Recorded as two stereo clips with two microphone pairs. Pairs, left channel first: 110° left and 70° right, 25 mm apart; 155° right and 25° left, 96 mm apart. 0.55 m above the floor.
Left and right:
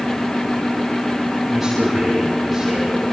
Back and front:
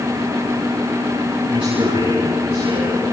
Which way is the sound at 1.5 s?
10° left.